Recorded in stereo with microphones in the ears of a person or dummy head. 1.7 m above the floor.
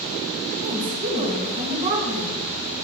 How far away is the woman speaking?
About 1.9 m.